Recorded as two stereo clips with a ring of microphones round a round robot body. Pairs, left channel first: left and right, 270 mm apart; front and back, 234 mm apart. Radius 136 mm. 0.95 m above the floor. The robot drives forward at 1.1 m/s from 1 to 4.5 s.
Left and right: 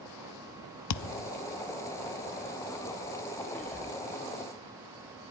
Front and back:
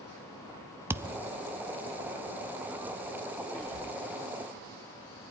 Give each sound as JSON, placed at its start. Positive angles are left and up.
{"t": 0.9, "sound": "a thud", "azimuth_deg": 100, "distance_m": 0.6}
{"t": 3.5, "sound": "whispering", "azimuth_deg": 175, "distance_m": 4.5}